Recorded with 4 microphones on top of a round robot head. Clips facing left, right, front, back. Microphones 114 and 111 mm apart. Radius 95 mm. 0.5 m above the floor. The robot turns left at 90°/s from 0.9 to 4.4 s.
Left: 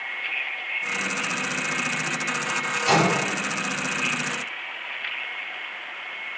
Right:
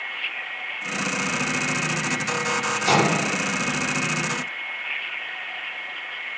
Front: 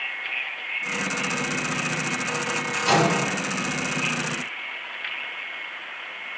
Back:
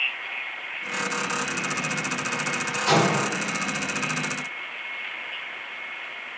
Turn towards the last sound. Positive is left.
turn(degrees=125)